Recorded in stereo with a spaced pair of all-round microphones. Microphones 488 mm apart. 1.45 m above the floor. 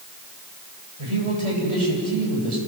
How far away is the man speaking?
About 8 m.